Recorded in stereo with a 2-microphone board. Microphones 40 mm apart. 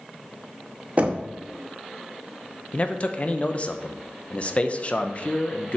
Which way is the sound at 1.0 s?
40° right (ahead or behind).